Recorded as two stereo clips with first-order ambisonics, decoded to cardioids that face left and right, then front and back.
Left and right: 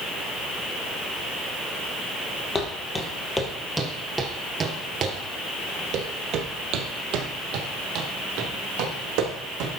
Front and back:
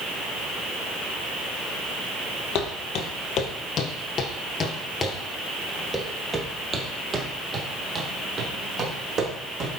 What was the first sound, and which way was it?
Footsteps, 25° left.